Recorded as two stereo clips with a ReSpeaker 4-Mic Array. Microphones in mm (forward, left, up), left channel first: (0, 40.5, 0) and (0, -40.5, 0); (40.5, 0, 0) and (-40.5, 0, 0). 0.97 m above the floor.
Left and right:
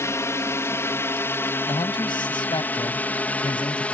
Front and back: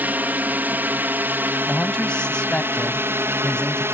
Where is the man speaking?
80° left.